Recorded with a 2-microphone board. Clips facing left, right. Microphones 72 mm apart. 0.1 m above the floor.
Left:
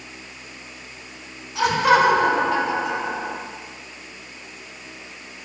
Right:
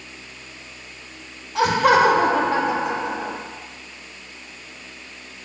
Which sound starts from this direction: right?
Laughter, at 1.6 s.